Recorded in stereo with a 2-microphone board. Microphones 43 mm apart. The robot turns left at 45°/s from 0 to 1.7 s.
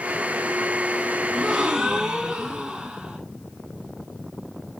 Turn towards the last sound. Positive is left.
turn(degrees=-15)  # may be behind; listen again after turning